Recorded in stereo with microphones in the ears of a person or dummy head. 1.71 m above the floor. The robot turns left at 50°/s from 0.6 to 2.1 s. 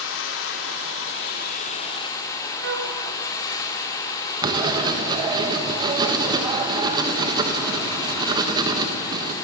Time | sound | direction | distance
0.0 | running water | 95° left | 3 m
2.6 | a flute | 60° right (ahead or behind) | 3.5 m
4.4 | writing | 20° right (ahead or behind) | 1.3 m